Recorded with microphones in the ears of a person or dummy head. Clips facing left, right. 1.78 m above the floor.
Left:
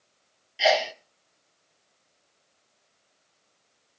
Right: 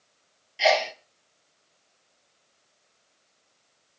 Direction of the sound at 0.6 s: 5° left (ahead or behind).